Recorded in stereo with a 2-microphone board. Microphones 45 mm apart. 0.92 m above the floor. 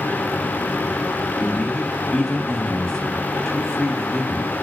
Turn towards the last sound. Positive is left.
turn(degrees=15)  # may be behind; listen again after turning